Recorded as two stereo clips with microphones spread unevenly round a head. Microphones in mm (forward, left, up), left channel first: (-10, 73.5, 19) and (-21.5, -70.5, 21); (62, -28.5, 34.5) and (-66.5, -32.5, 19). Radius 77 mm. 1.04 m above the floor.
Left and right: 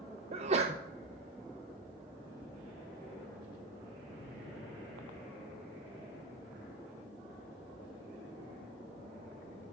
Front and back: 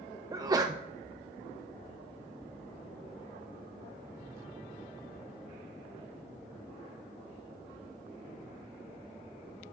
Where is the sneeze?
130° right, 0.7 m.